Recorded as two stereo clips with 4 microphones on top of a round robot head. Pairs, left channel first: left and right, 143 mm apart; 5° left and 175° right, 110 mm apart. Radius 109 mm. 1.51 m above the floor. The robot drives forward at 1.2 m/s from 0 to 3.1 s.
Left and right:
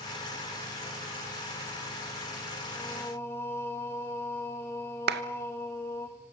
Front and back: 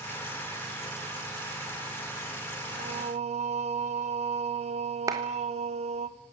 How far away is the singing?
About 2 m.